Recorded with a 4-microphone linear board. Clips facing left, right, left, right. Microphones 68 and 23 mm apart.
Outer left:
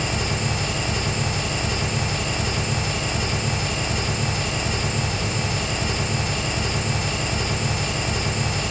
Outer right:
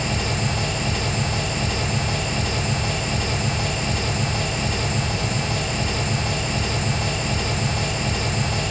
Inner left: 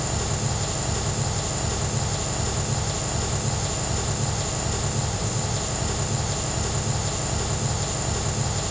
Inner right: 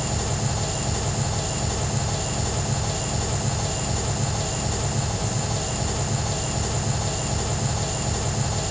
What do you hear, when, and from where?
0.0 s an engine running: 10° left (ahead or behind), 5 m